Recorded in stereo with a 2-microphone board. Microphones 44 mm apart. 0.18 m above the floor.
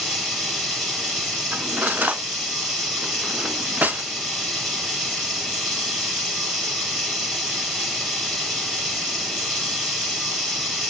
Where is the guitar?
I don't hear a guitar.